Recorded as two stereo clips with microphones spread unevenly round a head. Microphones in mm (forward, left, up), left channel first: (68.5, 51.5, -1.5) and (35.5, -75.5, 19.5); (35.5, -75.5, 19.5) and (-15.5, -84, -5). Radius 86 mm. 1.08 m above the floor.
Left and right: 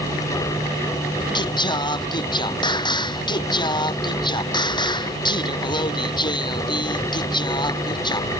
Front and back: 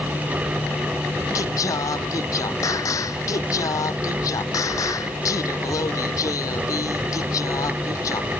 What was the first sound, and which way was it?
Singing, 20° left.